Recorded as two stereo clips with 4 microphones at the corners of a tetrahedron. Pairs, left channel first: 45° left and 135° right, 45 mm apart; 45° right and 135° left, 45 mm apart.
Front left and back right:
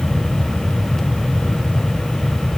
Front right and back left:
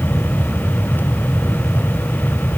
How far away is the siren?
I don't hear a siren.